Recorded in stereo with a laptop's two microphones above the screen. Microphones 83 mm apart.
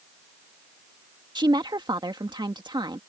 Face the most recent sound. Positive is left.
turn(degrees=-65)  # may be behind; listen again after turning